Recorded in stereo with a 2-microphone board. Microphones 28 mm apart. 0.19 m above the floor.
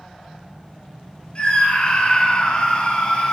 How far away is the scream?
About 1.6 m.